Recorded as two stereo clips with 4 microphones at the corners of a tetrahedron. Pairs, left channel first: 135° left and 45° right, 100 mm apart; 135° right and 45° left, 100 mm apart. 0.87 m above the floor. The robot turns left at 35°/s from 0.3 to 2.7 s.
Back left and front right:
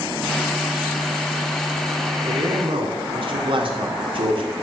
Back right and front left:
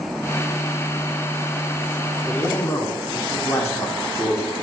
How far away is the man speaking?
About 2.5 m.